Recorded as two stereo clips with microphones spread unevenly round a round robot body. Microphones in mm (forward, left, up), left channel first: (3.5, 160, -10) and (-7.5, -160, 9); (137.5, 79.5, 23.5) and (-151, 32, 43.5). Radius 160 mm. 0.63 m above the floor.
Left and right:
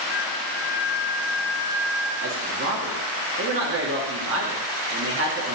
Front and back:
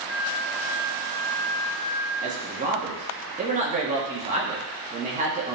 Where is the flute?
35° left, 1.8 m.